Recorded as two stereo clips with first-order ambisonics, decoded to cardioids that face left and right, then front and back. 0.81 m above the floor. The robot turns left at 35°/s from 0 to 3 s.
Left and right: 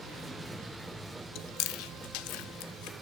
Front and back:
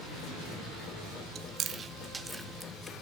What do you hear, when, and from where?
1.4 s chewing: 130° left, 0.7 m; by 2.9 s 75° left, 0.7 m